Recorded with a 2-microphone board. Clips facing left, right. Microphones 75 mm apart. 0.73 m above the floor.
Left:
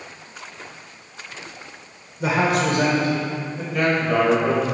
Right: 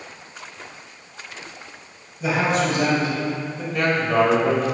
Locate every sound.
2.2 s a man speaking: 70° left (ahead or behind), 3 m; by 3.6 s 55° left (ahead or behind), 3.5 m
3.7 s a man speaking: 5° left (ahead or behind), 2.5 m